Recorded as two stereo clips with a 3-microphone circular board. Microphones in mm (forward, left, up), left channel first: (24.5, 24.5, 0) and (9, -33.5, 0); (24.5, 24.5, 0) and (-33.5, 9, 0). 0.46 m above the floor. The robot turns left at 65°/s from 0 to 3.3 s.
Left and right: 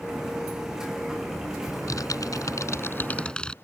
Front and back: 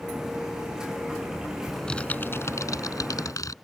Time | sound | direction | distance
1.7 | typing on a keyboard | 105° left | ?